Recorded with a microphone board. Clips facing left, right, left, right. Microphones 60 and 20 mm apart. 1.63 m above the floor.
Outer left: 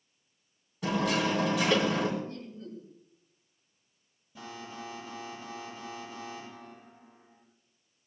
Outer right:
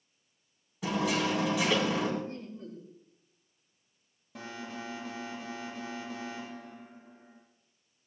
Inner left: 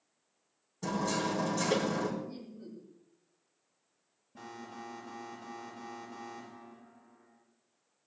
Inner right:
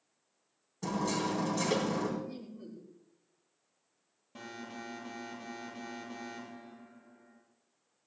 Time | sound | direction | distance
0.8 | hammering | 5° right (ahead or behind) | 4 m
2.2 | laughter | 40° right (ahead or behind) | 7.5 m
4.3 | an alarm | 70° right (ahead or behind) | 7.5 m